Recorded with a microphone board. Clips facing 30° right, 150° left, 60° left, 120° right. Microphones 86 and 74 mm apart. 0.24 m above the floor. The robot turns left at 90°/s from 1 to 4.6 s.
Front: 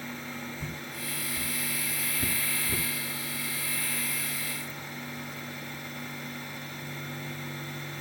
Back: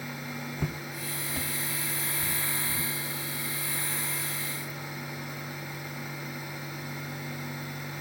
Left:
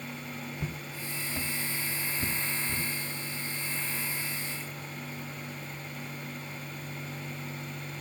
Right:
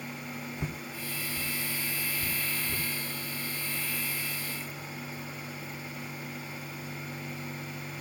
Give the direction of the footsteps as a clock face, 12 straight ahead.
6 o'clock.